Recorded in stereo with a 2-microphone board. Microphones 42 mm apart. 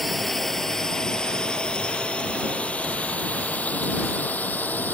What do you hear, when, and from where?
0.0 s a drone: 5° left (ahead or behind); by 4.9 s 45° left (ahead or behind)